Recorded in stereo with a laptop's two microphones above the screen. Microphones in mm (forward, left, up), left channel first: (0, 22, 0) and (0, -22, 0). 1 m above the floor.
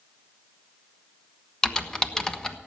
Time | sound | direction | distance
1.6 | typing on a keyboard | 15° left (ahead or behind) | 1.0 m